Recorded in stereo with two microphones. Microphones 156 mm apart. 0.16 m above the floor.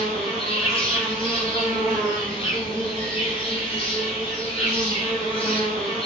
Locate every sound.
0.0 s an insect: 35° left (ahead or behind), 0.8 m